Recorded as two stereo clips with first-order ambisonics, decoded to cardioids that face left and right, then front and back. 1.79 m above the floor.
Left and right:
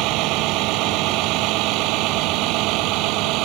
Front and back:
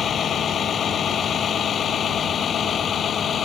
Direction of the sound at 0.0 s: 60° right.